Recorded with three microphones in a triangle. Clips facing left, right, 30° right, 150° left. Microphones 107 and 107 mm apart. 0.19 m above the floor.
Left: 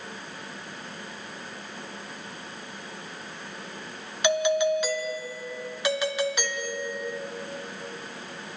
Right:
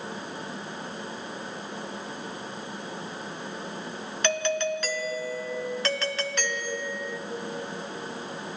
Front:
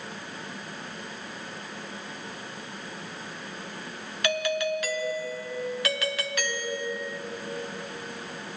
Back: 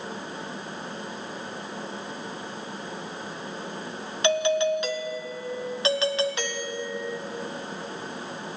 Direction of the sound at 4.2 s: 150° left.